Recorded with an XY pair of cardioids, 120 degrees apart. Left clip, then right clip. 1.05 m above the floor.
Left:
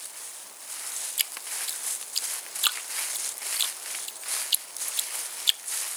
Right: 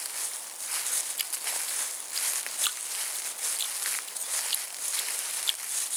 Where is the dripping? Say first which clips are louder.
Left 2 dB; 35° left.